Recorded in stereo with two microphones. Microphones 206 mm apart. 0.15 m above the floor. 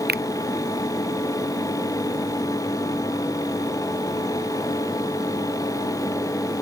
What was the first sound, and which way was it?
A finger snap, 50° right (ahead or behind).